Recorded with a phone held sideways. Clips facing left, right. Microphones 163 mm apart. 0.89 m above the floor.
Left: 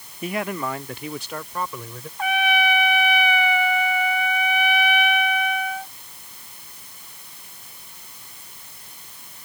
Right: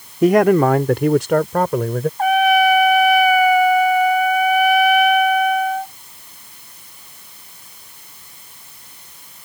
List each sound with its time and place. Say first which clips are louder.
0.2 s a man speaking: right 15 dB; 75° right (ahead or behind); by 2.1 s 65° right (ahead or behind)
2.2 s a trumpet: right 8 dB; 45° right (ahead or behind)